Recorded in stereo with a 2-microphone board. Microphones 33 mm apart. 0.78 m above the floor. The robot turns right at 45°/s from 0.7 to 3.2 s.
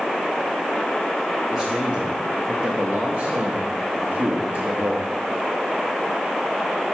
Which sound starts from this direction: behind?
A man speaking, at 1.5 s.